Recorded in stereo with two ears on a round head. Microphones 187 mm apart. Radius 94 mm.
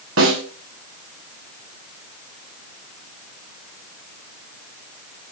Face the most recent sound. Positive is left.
turn(degrees=-70)  # may be behind; listen again after turning